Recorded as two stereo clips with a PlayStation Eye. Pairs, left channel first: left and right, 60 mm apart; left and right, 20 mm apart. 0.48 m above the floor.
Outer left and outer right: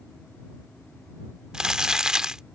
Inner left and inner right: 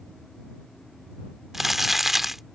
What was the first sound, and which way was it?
Crumpling, 15° right (ahead or behind).